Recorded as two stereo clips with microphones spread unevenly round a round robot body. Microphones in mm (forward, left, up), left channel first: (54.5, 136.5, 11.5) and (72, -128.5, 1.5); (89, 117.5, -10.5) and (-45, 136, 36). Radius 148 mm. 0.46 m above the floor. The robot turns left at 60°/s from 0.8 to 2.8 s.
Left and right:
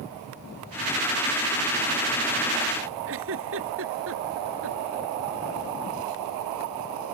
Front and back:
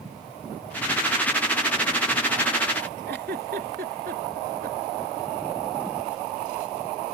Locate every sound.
3.1 s a giggle: 135° right